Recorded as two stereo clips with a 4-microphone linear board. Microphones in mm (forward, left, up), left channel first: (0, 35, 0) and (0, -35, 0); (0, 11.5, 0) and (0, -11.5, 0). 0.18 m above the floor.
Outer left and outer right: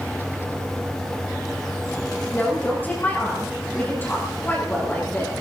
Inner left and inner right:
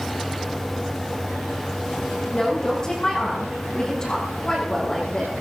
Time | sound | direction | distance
2.3 | a woman speaking | 30° left (ahead or behind) | 7.5 m